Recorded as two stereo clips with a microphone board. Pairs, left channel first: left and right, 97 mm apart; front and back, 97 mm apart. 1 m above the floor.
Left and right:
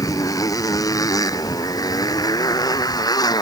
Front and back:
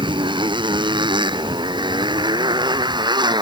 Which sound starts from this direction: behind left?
A motorcycle, at 0.0 s.